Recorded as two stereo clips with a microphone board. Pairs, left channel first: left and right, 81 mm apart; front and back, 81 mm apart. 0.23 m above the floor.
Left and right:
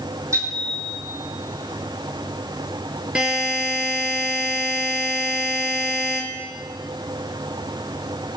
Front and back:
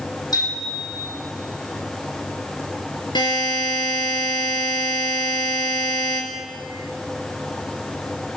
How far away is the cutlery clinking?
I don't hear cutlery clinking.